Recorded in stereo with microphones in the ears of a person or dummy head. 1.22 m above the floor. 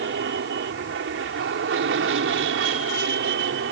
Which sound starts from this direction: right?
An aircraft, at 0.0 s.